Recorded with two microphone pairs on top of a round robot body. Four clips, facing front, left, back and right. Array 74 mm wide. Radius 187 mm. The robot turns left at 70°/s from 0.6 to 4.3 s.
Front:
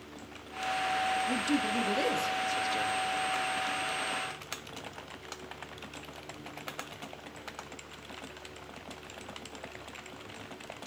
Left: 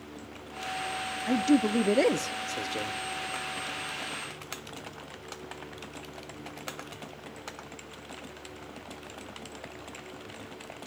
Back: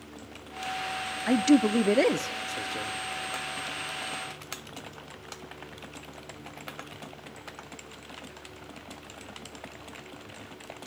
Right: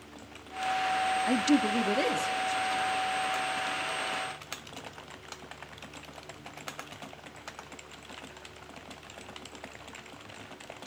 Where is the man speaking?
155° right, 1.0 m; by 3.0 s 85° left, 1.0 m.